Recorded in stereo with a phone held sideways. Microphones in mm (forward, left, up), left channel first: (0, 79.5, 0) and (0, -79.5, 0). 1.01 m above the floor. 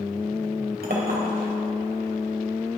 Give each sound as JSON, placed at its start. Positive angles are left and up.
{"t": 0.8, "sound": "a clink", "side_deg": -80, "distance_m": 3.0}